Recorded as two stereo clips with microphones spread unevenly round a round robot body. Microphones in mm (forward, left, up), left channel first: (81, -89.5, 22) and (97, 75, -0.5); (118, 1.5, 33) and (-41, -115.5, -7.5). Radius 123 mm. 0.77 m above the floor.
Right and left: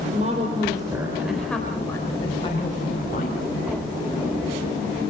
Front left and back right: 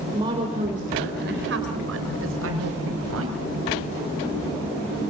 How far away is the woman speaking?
About 3 m.